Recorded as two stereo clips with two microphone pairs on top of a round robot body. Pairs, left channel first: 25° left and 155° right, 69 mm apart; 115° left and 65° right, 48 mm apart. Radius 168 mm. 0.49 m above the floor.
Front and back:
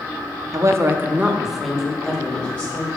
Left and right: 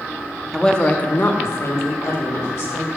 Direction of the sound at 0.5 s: 165° right.